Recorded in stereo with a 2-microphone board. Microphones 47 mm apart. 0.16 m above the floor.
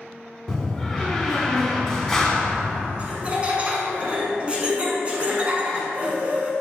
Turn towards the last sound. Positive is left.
turn(degrees=-25)  # may be behind; listen again after turning